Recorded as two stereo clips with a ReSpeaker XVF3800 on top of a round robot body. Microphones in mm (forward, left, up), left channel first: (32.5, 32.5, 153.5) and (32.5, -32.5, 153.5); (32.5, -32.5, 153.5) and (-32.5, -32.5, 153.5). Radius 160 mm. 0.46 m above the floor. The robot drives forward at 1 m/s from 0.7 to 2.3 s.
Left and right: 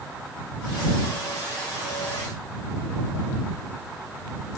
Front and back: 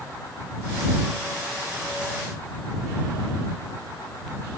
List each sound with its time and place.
Only background noise.